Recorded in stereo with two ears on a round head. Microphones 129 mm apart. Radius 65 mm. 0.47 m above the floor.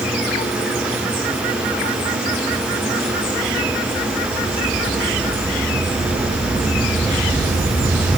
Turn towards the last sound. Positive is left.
No sound to turn to.